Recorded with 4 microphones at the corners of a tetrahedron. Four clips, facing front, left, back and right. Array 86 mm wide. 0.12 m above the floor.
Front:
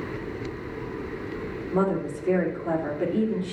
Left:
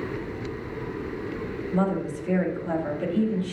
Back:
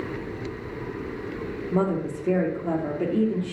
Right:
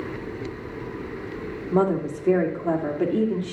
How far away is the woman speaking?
About 3 m.